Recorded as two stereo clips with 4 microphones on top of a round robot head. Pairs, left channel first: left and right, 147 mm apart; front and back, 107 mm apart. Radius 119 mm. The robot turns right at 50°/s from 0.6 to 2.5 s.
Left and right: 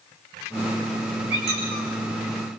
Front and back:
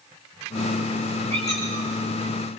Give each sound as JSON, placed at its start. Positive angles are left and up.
{"t": 1.3, "sound": "a squeak", "azimuth_deg": -80, "distance_m": 5.5}